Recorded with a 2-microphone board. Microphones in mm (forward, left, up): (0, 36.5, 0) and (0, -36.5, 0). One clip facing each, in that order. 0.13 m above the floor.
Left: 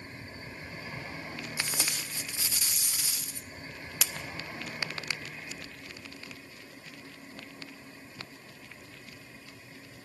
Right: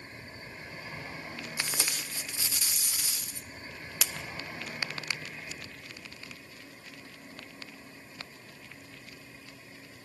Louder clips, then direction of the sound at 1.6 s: Even; centre (ahead or behind).